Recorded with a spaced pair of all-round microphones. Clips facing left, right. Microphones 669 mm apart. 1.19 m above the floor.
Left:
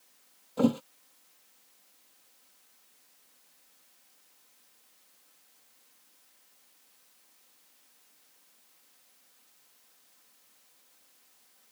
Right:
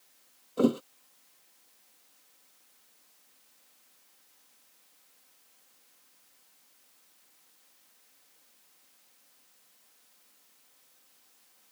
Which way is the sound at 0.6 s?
25° left (ahead or behind).